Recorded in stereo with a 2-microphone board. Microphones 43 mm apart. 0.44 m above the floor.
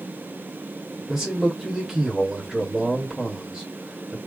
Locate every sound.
1.1 s a man speaking: 5° right (ahead or behind), 1.7 m